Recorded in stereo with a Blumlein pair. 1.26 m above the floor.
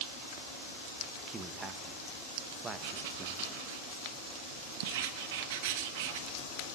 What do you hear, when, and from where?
1.3 s a man speaking: 20° right, 1.6 m
2.8 s writing: 50° right, 1.5 m